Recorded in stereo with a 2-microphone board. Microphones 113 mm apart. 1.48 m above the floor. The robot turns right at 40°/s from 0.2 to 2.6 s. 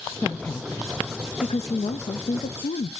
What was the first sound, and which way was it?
A woman speaking, 10° left.